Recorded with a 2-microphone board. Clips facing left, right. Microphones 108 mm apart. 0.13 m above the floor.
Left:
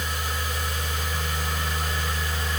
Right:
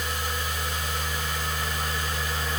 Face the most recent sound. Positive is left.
No sound to turn to.